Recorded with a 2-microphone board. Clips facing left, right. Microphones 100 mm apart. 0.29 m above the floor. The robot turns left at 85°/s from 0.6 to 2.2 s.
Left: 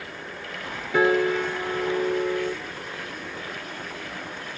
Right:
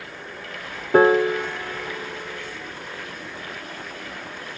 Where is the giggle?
I don't hear a giggle.